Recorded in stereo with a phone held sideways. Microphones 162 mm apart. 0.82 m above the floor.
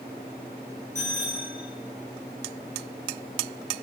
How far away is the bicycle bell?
About 9 m.